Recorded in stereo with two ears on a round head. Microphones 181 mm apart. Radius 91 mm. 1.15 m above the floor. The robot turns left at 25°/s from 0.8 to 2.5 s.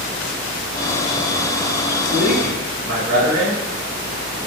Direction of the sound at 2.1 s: 75° right (ahead or behind).